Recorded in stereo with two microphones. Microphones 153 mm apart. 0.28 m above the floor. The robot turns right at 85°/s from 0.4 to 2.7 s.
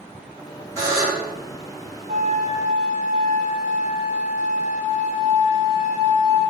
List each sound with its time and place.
0.8 s a buzzer: 140° right, 1.5 m; by 1.3 s 90° right, 1.5 m
2.1 s a flute: 120° right, 1.0 m; by 6.4 s 70° right, 1.0 m